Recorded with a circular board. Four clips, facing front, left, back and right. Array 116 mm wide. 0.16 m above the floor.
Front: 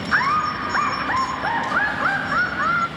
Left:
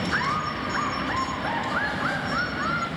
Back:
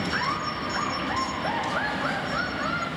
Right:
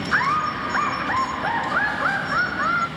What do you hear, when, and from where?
0.1 s laughter: 30° right, 1.8 m